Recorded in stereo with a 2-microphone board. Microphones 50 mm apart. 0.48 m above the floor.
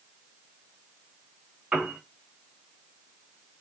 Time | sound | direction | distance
1.7 | a piano | 25° right (ahead or behind) | 4 m